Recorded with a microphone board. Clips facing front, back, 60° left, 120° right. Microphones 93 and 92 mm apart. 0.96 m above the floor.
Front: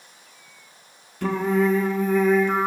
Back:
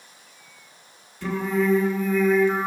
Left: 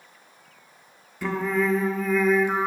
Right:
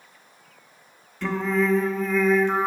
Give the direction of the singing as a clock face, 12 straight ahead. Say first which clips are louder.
Front 2 dB, right 1 dB; 1 o'clock.